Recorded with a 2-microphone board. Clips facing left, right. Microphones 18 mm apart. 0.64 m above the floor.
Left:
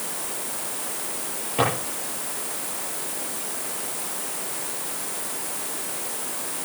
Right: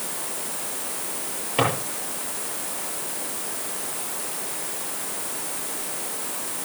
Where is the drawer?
25° right (ahead or behind), 9.5 m.